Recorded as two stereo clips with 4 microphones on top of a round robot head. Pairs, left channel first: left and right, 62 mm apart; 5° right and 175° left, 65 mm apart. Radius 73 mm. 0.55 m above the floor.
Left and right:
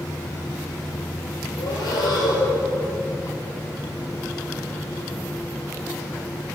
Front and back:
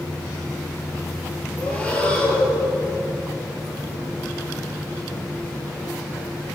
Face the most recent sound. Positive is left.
turn(degrees=65)